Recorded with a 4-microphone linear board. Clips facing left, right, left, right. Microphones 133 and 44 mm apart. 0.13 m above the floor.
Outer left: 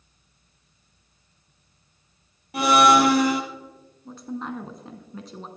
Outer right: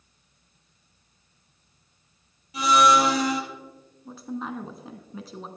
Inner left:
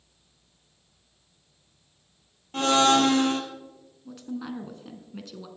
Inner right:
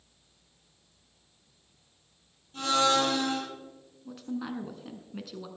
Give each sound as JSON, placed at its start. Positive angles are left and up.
{"t": 2.5, "sound": "a blender", "side_deg": 60, "distance_m": 1.4}
{"t": 4.0, "sound": "a woman speaking", "side_deg": -5, "distance_m": 1.0}